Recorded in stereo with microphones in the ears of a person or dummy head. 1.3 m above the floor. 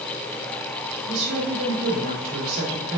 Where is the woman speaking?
60° right (ahead or behind), 2.5 m.